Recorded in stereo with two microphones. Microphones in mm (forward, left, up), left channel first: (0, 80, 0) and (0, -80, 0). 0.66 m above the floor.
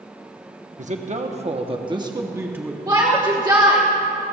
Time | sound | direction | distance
0.8 | a man speaking | 50° right (ahead or behind) | 1.2 m
2.9 | a shout | 25° right (ahead or behind) | 1.3 m